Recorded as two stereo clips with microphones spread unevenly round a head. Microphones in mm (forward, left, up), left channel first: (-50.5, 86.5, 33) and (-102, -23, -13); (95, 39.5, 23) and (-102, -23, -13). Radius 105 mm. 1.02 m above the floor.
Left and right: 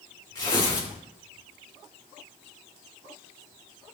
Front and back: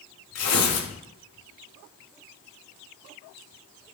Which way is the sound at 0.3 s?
5° right.